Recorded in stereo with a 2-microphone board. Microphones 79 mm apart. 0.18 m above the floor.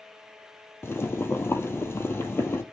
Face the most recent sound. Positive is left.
turn(degrees=30)  # may be behind; listen again after turning